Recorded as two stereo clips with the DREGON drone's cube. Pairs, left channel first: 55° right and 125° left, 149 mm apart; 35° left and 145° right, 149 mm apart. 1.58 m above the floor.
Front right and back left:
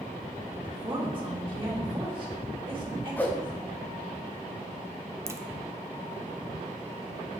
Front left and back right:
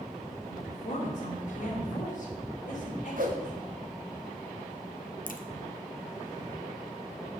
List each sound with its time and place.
0.5 s a woman speaking: 70° left, 2.5 m
3.2 s a whoosh: 135° right, 0.9 m
5.3 s a crack: 55° left, 0.7 m